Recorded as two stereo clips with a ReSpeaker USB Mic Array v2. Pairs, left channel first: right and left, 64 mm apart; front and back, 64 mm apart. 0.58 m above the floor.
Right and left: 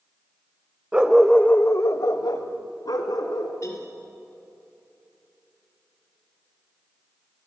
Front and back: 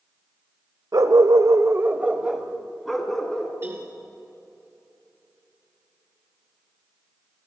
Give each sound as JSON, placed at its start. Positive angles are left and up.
{"t": 0.9, "sound": "a dog barking", "azimuth_deg": 160, "distance_m": 1.1}
{"t": 3.6, "sound": "a cowbell", "azimuth_deg": -130, "distance_m": 4.0}